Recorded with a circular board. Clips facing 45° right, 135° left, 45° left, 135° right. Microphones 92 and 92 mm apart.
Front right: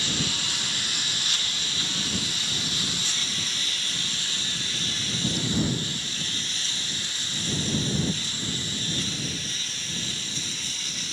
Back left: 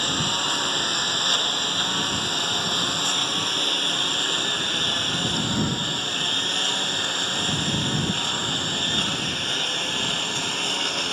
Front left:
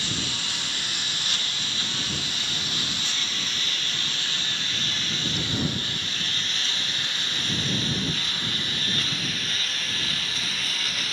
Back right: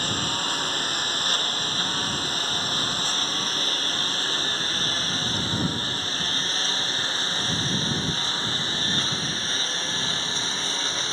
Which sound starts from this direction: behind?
A lawn mower, at 0.0 s.